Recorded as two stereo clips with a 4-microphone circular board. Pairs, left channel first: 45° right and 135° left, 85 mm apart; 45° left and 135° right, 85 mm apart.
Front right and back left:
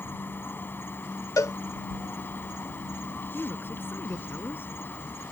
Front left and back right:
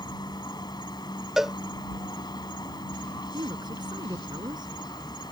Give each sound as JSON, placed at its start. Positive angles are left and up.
{"t": 0.0, "sound": "an insect", "azimuth_deg": 20}
{"t": 1.4, "sound": "a cowbell", "azimuth_deg": -50}
{"t": 3.3, "sound": "a woman speaking", "azimuth_deg": -110}